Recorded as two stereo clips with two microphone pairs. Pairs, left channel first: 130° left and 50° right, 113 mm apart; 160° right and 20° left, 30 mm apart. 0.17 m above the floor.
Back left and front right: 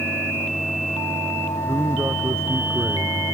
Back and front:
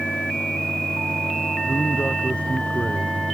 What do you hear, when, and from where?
1.7 s a man speaking: 120° right; by 3.2 s 115° right